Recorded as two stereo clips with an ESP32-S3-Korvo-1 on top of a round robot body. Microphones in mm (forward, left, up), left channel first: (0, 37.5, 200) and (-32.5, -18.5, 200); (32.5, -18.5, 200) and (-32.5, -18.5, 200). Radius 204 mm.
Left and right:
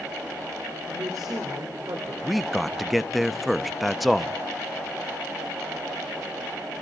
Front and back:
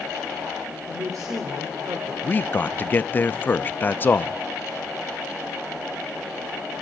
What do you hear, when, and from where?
0.9 s a woman speaking: 150° right, 2.5 m
2.2 s a man speaking: 30° right, 0.8 m